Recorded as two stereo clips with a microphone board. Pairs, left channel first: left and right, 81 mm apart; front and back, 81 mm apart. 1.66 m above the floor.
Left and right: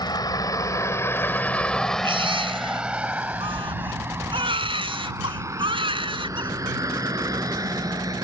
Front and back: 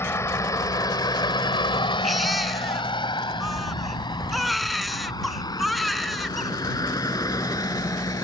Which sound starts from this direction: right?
A baby crying, at 2.0 s.